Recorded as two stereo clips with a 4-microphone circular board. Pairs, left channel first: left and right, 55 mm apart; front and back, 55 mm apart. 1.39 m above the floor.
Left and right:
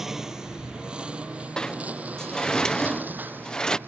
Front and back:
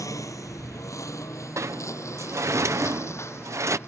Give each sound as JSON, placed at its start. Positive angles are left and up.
{"t": 0.0, "sound": "a lawn mower", "azimuth_deg": -5}
{"t": 1.6, "sound": "a sliding door", "azimuth_deg": 165}